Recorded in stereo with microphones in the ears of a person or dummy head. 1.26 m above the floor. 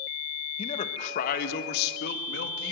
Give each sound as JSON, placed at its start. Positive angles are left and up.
{"t": 0.6, "sound": "a man speaking", "side_deg": 35, "distance_m": 0.9}